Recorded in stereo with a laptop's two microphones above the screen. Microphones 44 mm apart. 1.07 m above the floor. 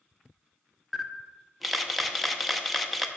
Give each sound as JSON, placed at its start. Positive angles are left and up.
{"t": 0.9, "sound": "a camera shutter", "side_deg": 0, "distance_m": 0.7}